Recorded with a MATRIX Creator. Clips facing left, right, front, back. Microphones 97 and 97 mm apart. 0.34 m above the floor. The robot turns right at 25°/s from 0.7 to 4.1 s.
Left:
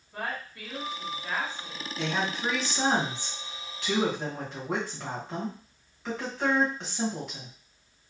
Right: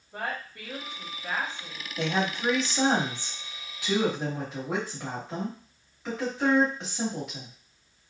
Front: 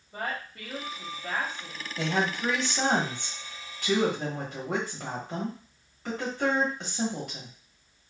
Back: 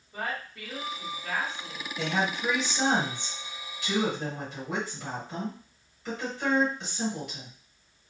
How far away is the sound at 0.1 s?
About 1.6 m.